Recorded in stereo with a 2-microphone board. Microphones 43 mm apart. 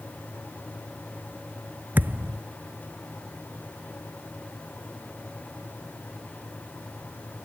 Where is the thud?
50° right (ahead or behind).